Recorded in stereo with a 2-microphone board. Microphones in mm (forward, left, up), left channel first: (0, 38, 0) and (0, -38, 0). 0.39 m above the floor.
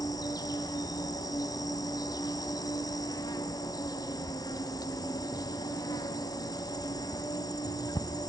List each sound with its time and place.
0.0 s an insect: 55° left (ahead or behind), 1.2 m